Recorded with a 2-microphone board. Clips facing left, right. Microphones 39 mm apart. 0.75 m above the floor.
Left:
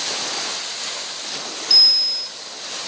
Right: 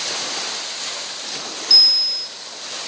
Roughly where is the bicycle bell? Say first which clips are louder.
Right 1 dB; centre.